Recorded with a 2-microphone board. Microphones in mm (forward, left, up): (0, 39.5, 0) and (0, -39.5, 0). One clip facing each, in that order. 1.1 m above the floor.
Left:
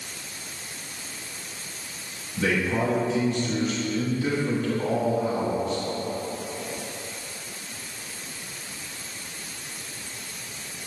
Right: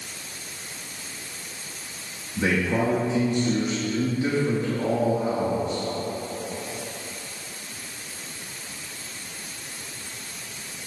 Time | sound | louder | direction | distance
2.4 | a man speaking | right 1 dB | 25° right (ahead or behind) | 2 m